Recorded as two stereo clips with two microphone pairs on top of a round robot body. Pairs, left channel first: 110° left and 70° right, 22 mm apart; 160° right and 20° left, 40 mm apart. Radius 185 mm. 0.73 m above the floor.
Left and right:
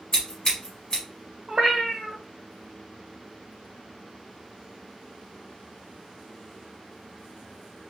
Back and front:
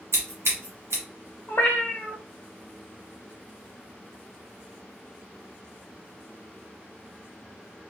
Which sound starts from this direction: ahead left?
Scissors, at 0.1 s.